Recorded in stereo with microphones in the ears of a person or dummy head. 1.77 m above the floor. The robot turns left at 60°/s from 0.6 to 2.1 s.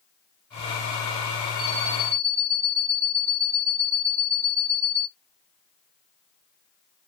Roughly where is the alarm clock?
Behind right.